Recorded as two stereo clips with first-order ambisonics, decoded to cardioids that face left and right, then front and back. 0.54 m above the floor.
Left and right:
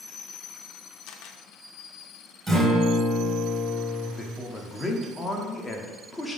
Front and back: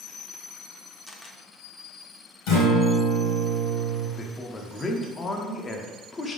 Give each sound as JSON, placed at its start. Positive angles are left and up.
{"t": 1.1, "sound": "a camera shutter", "azimuth_deg": 80, "distance_m": 0.7}
{"t": 2.5, "sound": "a guitar", "azimuth_deg": -15, "distance_m": 2.5}
{"t": 4.2, "sound": "a man speaking", "azimuth_deg": 30, "distance_m": 0.7}